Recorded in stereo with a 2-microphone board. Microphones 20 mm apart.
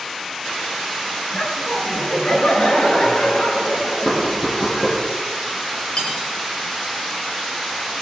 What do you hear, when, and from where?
1.3 s laughter: 60° left (ahead or behind), 5 m; by 4.9 s 70° left (ahead or behind), 7.5 m
4.0 s knocking: 35° left (ahead or behind), 5 m
6.0 s cutlery clinking: 45° left (ahead or behind), 4 m